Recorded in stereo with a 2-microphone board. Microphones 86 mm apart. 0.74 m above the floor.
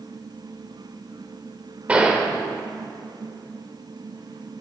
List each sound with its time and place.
1.9 s a gunshot: 15° right (ahead or behind), 3 m